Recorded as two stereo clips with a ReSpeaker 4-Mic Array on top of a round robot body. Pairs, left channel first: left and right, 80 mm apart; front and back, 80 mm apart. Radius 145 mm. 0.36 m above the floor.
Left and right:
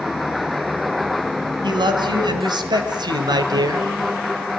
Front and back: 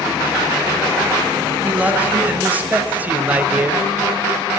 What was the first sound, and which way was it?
A man speaking, 110° right.